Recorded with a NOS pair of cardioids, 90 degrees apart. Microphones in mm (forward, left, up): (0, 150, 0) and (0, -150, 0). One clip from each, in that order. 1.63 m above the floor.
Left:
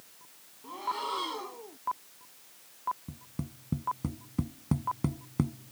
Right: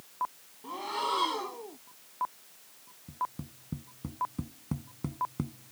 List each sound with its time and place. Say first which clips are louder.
0.6 s breathing: right 1 dB; 30° right
3.1 s tapping: right 10 dB; 40° left